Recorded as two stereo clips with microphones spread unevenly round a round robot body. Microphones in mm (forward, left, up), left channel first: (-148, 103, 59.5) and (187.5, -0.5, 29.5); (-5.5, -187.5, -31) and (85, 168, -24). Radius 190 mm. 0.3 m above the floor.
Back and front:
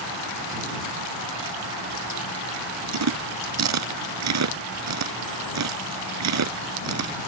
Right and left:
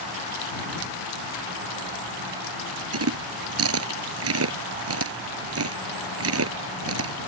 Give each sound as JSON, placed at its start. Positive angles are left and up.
{"t": 2.9, "sound": "chewing", "azimuth_deg": 25}